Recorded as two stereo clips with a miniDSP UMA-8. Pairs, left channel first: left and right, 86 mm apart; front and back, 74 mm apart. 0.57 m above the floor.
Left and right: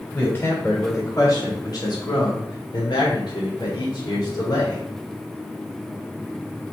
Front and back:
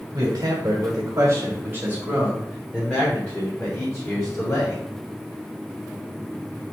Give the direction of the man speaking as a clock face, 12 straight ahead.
7 o'clock.